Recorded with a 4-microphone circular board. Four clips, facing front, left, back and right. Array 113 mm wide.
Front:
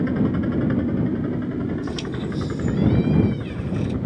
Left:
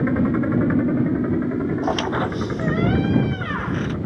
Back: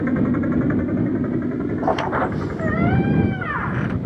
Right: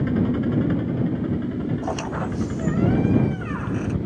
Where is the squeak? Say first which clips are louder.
Left 5 dB, back 8 dB; 165° left.